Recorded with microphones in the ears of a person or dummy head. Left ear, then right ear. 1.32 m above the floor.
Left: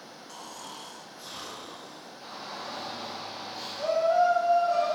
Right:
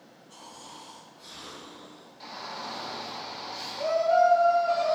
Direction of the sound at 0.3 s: 70° left (ahead or behind).